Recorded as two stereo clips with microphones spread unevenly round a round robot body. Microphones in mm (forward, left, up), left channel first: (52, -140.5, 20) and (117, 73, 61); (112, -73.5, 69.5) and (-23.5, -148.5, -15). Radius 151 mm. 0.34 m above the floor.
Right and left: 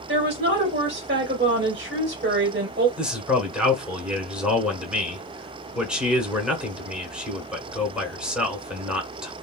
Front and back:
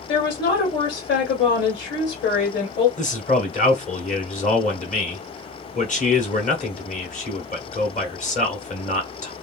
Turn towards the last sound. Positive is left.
turn(degrees=-25)